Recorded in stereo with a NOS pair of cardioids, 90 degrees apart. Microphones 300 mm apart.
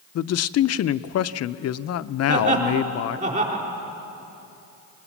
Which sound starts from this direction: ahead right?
Laughter, at 2.3 s.